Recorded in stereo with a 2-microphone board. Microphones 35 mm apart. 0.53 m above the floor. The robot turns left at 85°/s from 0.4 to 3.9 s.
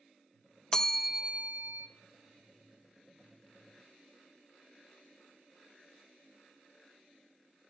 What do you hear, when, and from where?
0.7 s a bell: 20° left, 0.5 m; by 1.9 s 75° right, 0.5 m